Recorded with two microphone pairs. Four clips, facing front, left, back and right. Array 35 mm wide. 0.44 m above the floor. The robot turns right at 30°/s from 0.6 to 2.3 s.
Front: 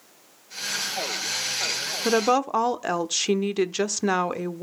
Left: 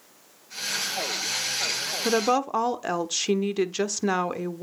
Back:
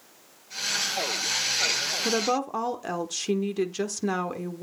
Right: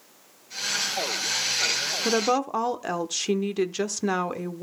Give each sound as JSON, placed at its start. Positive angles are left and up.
{"t": 2.0, "sound": "a woman speaking", "azimuth_deg": 10, "distance_m": 0.9}